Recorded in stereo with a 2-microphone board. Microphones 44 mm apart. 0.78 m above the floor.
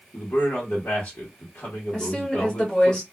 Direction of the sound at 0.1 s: 45° left (ahead or behind).